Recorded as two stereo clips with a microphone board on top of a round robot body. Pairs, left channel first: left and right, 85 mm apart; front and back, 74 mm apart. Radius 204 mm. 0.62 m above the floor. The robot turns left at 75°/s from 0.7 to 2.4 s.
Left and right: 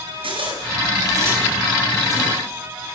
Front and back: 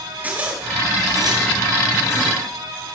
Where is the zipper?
110° right, 5 m; by 2.4 s 125° left, 5 m.